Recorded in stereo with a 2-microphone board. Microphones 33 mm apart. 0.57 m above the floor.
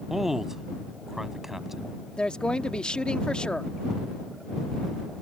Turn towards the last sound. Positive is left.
turn(degrees=30)  # may be behind; listen again after turning